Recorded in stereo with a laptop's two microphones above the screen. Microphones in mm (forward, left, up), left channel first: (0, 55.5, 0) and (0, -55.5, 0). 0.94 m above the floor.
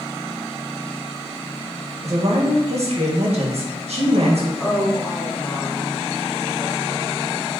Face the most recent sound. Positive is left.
turn(degrees=20)  # may be behind; listen again after turning